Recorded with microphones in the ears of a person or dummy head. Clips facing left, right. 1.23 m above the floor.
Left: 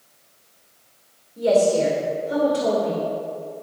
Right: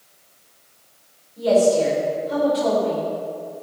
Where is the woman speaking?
30° left (ahead or behind), 4 m.